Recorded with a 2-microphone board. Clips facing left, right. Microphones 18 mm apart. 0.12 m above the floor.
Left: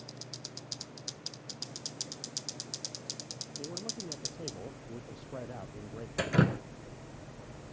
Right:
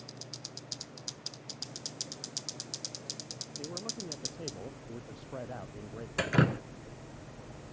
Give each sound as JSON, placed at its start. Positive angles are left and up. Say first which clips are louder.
{"t": 3.6, "sound": "a man speaking", "louder": "even", "side_deg": -60}
{"t": 6.2, "sound": "dripping", "louder": "even", "side_deg": -40}